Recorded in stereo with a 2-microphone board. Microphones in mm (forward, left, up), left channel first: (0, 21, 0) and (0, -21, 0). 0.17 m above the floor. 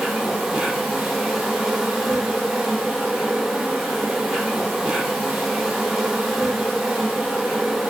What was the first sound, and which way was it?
An insect, 5° right (ahead or behind).